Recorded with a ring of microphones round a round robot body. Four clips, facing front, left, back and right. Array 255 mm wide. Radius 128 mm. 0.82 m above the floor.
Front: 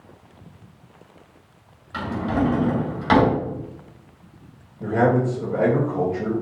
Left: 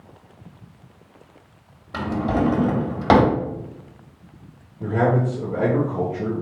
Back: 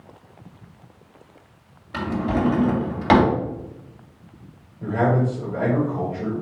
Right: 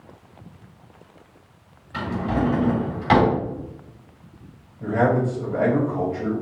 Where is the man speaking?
55° left, 3 m.